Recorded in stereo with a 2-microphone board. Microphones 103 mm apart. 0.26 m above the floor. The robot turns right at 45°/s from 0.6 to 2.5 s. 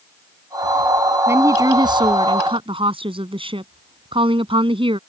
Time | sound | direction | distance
1.3 | a woman speaking | 150° right | ?